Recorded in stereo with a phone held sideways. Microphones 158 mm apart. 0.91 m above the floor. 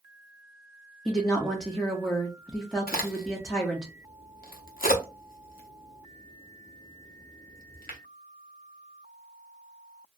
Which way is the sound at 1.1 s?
5° left (ahead or behind).